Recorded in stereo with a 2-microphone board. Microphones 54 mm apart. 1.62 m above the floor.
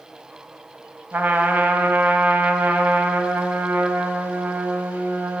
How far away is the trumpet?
About 1.0 m.